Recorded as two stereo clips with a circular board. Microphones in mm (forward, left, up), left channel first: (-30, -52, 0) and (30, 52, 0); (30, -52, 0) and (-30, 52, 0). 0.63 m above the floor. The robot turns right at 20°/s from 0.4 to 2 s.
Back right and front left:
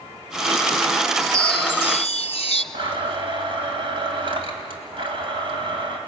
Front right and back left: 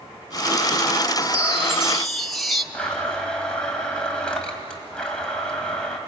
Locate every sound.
1.2 s a chime: 165° right, 0.6 m; by 2.6 s 150° right, 0.6 m
2.7 s a blender: 20° left, 2.5 m